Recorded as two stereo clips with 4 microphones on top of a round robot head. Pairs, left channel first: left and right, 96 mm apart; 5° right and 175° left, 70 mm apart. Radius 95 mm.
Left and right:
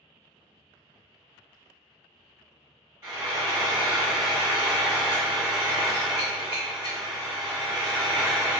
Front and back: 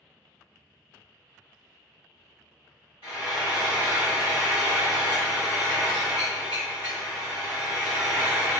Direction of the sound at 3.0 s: 25° right.